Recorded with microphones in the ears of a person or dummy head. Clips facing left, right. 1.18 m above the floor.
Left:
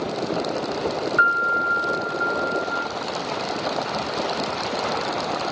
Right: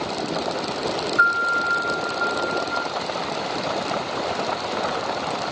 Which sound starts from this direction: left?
A piano, at 1.2 s.